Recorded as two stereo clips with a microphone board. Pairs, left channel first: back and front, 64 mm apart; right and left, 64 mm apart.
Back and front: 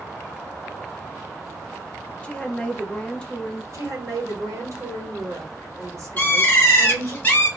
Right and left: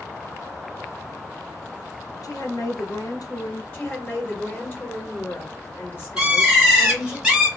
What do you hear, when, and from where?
2.2 s a woman speaking: 105° right, 0.8 m
3.7 s a woman speaking: 30° right, 1.3 m
6.2 s a bird: 150° left, 1.1 m